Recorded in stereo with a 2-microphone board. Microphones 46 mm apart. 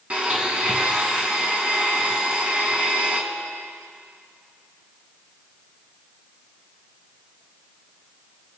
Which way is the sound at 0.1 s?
25° right (ahead or behind).